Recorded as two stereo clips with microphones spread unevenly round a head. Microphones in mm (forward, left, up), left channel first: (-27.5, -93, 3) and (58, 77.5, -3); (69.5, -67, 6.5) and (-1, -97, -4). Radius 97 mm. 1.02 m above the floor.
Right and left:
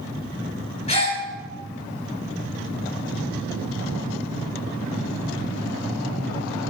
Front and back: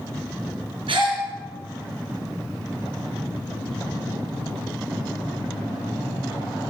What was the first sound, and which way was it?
A gasp, straight behind.